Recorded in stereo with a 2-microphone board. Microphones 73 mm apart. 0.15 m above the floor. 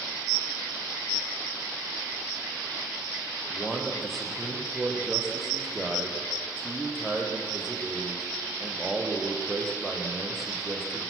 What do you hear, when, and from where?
3.5 s a man speaking: centre (ahead or behind), 5 m